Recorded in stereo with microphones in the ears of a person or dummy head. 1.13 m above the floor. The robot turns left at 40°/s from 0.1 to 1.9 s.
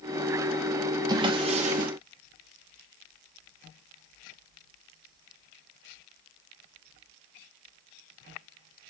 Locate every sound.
1.1 s a drawer: 20° right (ahead or behind), 1.0 m; by 1.9 s 50° right (ahead or behind), 1.0 m